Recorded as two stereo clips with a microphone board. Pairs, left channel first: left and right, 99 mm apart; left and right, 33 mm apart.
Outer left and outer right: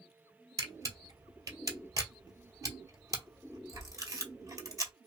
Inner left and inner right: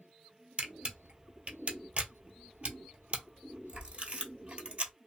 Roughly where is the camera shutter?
Right.